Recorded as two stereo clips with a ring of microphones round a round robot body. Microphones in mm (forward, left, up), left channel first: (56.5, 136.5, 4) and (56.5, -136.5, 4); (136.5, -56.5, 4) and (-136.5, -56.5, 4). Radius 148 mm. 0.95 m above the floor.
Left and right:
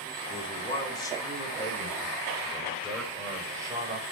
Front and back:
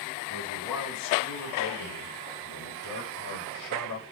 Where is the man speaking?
20° left, 3.5 m; by 4.0 s 15° right, 5 m.